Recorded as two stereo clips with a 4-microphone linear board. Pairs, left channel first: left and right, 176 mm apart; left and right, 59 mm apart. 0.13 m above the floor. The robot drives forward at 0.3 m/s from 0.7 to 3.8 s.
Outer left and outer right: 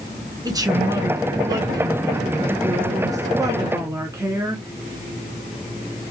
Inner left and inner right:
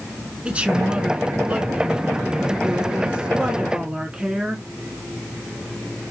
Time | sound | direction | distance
0.5 | a woman speaking | 20° right (ahead or behind) | 1.4 m